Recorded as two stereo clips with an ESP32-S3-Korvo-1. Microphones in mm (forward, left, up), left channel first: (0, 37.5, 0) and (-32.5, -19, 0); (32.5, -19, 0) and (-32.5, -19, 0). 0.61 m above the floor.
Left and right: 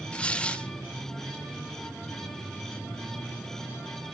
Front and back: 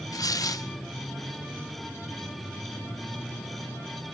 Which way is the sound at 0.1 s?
10° right.